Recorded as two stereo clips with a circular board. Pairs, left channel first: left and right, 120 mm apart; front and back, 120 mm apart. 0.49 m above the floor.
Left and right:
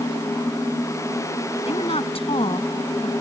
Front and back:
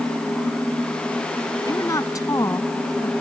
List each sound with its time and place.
1.6 s a woman speaking: 60° left